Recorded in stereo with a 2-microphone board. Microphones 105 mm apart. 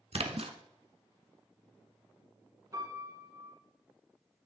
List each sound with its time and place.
0.1 s a splash: 65° right (ahead or behind), 1.0 m
2.7 s a piano: 35° right (ahead or behind), 5 m